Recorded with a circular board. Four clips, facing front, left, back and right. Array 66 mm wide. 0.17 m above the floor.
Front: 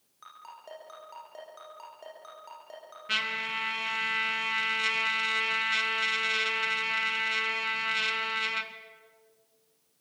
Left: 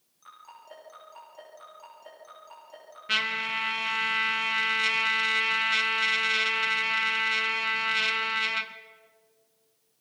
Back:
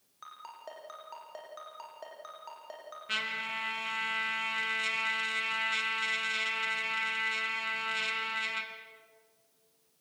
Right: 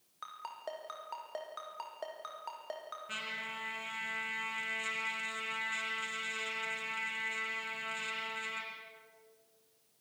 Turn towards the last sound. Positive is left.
turn(degrees=75)